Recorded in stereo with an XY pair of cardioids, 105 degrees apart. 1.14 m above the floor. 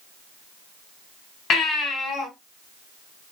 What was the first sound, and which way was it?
A baby crying, 70° left.